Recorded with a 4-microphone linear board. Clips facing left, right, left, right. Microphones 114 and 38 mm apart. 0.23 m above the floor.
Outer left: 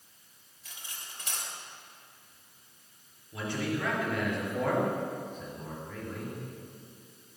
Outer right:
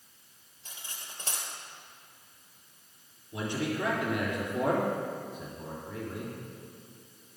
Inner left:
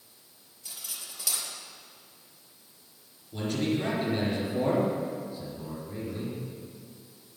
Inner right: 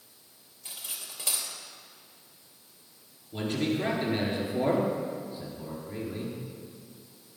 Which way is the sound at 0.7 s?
30° right (ahead or behind).